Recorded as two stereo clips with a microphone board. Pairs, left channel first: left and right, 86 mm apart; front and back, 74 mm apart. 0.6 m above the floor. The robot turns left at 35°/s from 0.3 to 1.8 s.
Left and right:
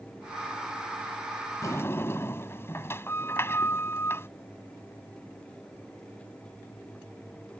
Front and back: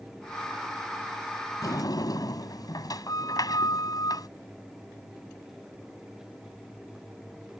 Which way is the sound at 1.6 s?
35° left.